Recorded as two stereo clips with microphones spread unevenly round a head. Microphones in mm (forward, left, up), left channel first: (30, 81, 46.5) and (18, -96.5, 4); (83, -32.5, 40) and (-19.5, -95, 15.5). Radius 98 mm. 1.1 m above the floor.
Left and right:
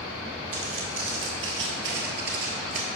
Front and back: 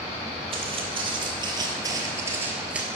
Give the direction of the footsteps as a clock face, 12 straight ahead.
4 o'clock.